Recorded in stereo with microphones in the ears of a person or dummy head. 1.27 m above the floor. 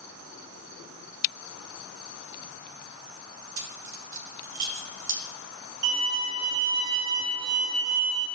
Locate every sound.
3.6 s keys jangling: 65° right (ahead or behind), 1.3 m
5.8 s a violin: 75° right (ahead or behind), 2 m